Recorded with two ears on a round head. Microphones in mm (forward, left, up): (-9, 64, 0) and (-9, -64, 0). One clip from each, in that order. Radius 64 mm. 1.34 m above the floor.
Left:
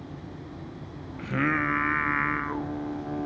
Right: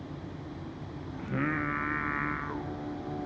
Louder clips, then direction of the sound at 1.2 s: Left 6 dB; 70° left (ahead or behind).